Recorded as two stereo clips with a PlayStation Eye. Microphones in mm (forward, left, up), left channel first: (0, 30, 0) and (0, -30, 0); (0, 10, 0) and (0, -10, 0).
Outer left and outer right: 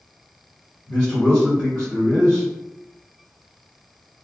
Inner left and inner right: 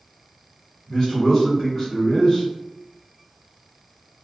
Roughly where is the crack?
No crack in this recording.